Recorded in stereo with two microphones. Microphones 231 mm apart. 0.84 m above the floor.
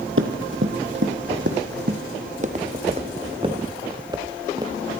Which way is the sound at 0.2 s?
65° right (ahead or behind).